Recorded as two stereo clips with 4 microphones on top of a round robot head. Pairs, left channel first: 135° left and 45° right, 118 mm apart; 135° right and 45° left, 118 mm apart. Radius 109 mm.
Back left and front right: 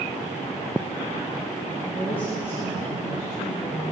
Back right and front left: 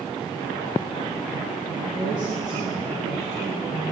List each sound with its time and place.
1.8 s a woman speaking: 50° left, 4 m; by 3.9 s 90° left, 3.5 m